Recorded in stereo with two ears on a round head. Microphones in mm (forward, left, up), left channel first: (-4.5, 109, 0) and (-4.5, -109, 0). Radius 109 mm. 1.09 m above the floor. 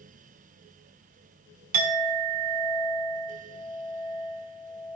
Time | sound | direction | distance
1.7 | a clink | 75° right (ahead or behind) | 1.8 m